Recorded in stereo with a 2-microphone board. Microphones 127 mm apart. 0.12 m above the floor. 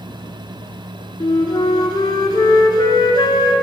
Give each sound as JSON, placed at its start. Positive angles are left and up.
{"t": 1.2, "sound": "a flute", "side_deg": 35, "distance_m": 0.9}